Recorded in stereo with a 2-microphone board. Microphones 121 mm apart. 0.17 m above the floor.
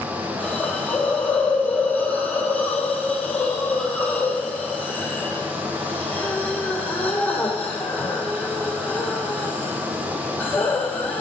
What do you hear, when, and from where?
0.4 s a hiss: 15° left (ahead or behind), 1.5 m